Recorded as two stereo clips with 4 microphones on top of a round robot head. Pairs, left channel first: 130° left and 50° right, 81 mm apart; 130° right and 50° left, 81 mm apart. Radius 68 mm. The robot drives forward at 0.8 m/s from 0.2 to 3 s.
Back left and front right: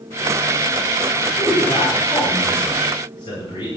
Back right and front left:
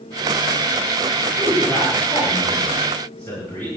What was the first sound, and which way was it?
A man speaking, 165° left.